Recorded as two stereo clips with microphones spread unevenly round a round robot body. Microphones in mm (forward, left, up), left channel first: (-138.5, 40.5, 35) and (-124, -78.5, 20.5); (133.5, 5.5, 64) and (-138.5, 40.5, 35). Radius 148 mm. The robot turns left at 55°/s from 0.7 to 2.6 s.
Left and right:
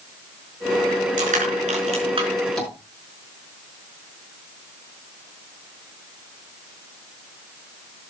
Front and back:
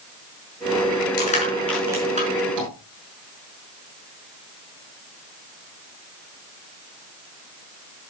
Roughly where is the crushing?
Ahead right.